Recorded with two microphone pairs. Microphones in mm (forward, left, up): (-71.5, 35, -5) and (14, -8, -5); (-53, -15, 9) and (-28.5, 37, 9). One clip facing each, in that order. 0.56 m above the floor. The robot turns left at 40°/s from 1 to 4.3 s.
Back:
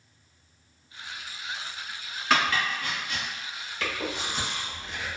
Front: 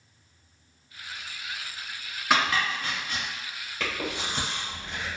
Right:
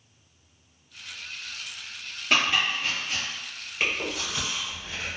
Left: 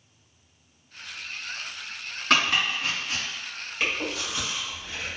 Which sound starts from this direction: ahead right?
Chewing, at 3.8 s.